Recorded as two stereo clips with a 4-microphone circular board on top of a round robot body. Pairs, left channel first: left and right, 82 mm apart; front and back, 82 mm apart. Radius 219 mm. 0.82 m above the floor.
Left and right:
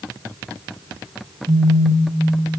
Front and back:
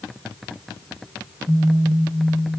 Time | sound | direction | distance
1.5 | a phone buzzing | 80° right | 0.8 m